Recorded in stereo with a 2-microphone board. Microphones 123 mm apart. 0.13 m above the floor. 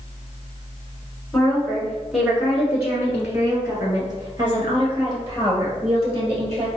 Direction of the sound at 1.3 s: 10° left (ahead or behind).